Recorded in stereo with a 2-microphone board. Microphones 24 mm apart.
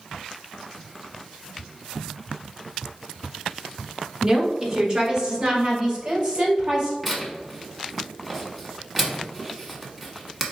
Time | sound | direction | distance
4.2 | a woman speaking | 15° right (ahead or behind) | 1.3 m
7.0 | tearing paper | 5° left (ahead or behind) | 0.9 m